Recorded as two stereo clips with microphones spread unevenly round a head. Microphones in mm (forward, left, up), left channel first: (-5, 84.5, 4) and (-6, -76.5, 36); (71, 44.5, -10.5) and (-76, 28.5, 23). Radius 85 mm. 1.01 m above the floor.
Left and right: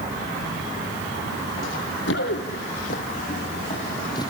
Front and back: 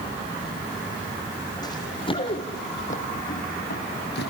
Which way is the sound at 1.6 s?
75° left.